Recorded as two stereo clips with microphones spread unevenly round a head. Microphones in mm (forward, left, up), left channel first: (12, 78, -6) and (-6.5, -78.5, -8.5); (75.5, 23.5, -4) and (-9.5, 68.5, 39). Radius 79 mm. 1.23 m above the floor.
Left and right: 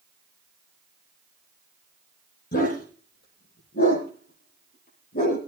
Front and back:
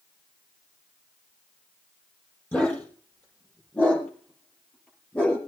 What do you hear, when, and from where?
2.5 s a dog barking: 50° left, 7 m